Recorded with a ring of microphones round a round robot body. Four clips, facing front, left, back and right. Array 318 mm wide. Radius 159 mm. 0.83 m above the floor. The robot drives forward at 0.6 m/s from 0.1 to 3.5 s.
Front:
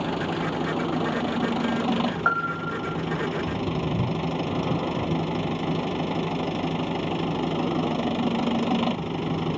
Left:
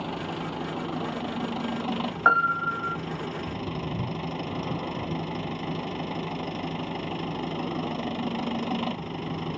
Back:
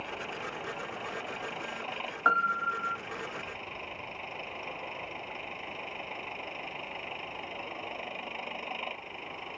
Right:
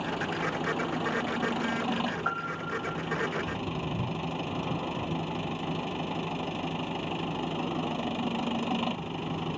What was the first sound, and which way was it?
An engine running, 5° left.